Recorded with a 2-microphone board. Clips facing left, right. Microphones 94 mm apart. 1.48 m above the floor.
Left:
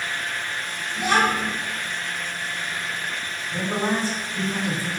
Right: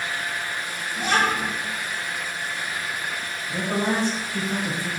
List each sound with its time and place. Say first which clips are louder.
0.9 s a child speaking: left 2 dB; 50° right (ahead or behind), 1.5 m
3.5 s a man speaking: even; 60° right (ahead or behind), 1.6 m